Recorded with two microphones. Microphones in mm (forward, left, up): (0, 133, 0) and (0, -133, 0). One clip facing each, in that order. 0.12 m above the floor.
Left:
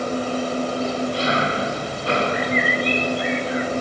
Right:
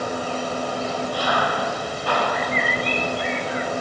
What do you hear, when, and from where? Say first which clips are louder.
0.0 s an engine running: left 4 dB; 25° left (ahead or behind)